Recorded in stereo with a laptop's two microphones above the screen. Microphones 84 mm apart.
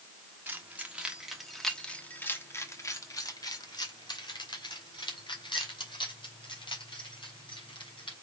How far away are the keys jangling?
About 1.2 m.